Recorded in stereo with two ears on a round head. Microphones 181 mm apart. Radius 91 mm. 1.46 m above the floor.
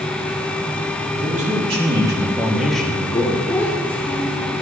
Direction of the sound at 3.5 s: 10° left (ahead or behind).